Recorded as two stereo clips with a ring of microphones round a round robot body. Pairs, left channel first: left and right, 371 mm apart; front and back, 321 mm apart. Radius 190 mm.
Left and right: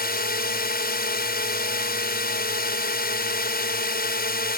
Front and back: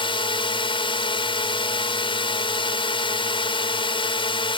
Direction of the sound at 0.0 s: 55° left.